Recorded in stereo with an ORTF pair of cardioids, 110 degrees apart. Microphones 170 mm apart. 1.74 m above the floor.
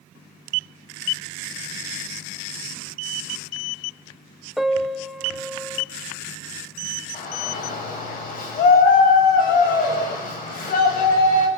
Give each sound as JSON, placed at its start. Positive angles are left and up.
{"t": 4.6, "sound": "a piano", "azimuth_deg": 0, "distance_m": 0.9}
{"t": 7.1, "sound": "a shout", "azimuth_deg": 55, "distance_m": 8.5}